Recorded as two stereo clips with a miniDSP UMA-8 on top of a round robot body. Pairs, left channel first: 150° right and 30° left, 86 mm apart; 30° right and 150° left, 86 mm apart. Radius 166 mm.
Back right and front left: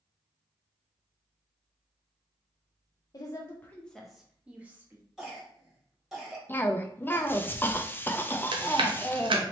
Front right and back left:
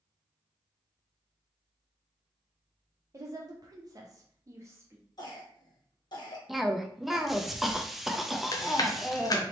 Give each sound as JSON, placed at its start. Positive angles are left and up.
{"t": 3.1, "sound": "a woman speaking", "azimuth_deg": -175, "distance_m": 0.7}
{"t": 5.2, "sound": "a cough", "azimuth_deg": -55, "distance_m": 1.4}
{"t": 6.5, "sound": "a cough", "azimuth_deg": -125, "distance_m": 0.6}
{"t": 8.5, "sound": "chewing", "azimuth_deg": 15, "distance_m": 0.6}